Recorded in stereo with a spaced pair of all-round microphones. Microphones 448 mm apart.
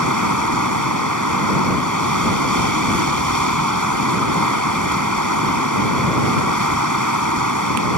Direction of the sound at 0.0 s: 40° right (ahead or behind).